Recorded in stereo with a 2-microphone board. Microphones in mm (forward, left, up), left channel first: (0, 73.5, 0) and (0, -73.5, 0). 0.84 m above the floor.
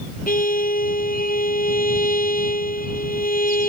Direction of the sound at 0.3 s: 80° left.